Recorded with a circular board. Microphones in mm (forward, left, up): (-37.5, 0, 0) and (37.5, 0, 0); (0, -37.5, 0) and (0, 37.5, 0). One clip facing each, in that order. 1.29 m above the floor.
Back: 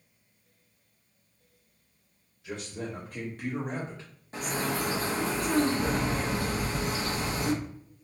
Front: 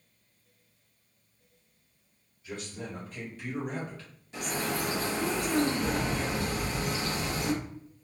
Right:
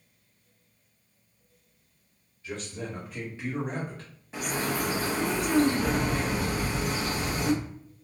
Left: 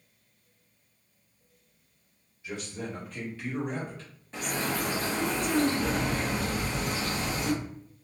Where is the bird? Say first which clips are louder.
Back 2 dB, right 1 dB; 165° right, 0.7 m.